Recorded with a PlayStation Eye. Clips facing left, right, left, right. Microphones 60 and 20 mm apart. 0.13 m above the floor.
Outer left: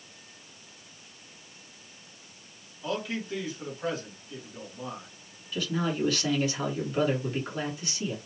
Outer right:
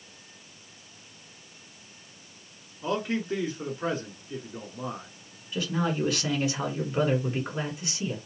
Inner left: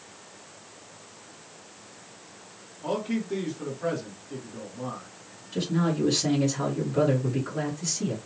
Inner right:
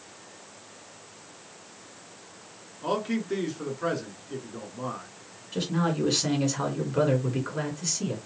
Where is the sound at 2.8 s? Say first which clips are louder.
Outer right 4 dB, inner right 1 dB; 35° right (ahead or behind), 1.4 m.